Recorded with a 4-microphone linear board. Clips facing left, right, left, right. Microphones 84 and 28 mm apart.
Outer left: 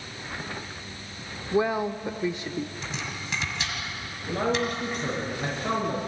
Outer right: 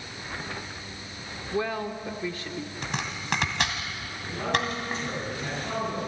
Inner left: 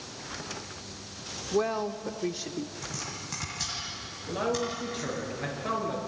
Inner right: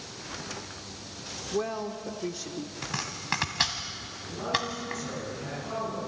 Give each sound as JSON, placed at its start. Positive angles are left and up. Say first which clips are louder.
{"t": 1.5, "sound": "a woman speaking", "louder": "outer left 5 dB, inner left 3 dB", "side_deg": 20, "distance_m": 0.8}
{"t": 2.8, "sound": "chopping", "louder": "outer right 2 dB, inner right 3 dB", "side_deg": -60, "distance_m": 2.5}
{"t": 4.3, "sound": "a man speaking", "louder": "outer left 3 dB, inner left 1 dB", "side_deg": 75, "distance_m": 7.0}